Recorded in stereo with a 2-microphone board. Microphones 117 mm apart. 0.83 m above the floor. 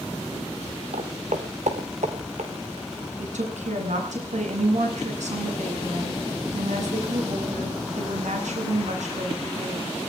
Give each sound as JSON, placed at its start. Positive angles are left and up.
{"t": 0.9, "sound": "footsteps", "side_deg": -70, "distance_m": 2.5}
{"t": 3.2, "sound": "a woman speaking", "side_deg": -85, "distance_m": 9.0}